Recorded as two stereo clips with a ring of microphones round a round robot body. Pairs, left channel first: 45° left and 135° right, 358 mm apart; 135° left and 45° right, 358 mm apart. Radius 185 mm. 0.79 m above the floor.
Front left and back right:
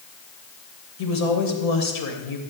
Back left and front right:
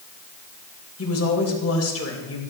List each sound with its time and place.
1.0 s a woman speaking: 80° left, 3.5 m